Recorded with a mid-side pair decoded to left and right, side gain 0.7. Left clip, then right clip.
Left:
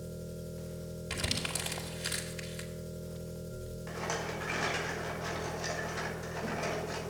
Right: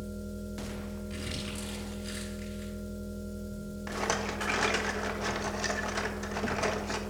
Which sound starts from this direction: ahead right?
A rattle, at 3.9 s.